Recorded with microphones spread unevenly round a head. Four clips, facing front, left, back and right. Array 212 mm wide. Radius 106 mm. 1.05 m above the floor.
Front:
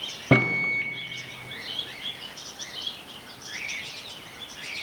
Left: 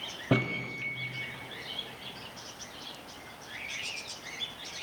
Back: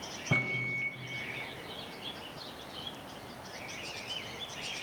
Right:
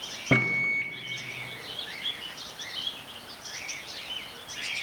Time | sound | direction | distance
0.3 | a microwave | 5° right | 0.8 m